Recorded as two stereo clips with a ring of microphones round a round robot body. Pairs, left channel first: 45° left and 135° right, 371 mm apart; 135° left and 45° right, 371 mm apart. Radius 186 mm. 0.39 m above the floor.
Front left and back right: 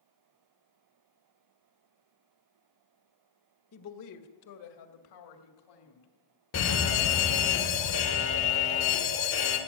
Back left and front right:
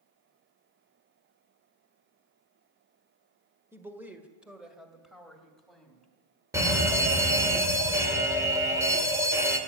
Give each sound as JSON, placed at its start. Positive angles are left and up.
{"t": 3.7, "sound": "a woman speaking", "azimuth_deg": 35, "distance_m": 1.5}
{"t": 6.5, "sound": "a fire alarm", "azimuth_deg": 30, "distance_m": 2.0}